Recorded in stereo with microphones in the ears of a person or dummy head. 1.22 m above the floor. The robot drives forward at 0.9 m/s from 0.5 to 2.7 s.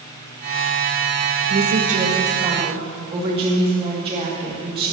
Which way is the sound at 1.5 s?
50° right (ahead or behind).